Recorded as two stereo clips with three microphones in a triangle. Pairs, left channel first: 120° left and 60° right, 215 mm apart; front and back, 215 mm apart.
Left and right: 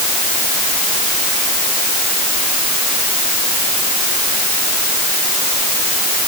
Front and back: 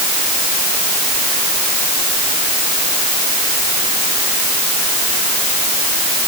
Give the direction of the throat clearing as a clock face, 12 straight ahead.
No throat clearing in this recording.